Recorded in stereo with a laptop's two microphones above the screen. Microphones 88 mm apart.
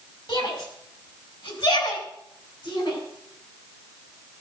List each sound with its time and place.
0.3 s a shout: 70° left (ahead or behind), 6.5 m